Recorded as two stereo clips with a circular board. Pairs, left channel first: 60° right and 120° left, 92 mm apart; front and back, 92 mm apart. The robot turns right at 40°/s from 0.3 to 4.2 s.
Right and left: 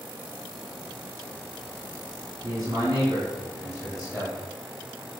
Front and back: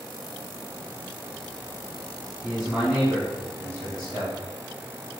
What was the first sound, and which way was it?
A man speaking, 90° left.